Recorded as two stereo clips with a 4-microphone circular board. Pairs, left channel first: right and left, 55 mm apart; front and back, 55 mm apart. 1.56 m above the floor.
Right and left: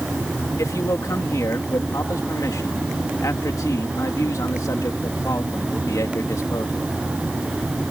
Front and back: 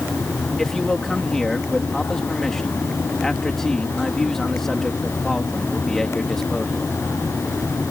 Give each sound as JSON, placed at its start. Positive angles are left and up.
{"t": 0.6, "sound": "a man speaking", "azimuth_deg": -85}